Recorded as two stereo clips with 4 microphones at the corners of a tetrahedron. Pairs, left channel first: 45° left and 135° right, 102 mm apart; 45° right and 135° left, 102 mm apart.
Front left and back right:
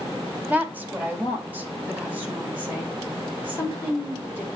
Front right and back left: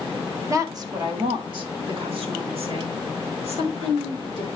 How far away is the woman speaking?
About 1.6 m.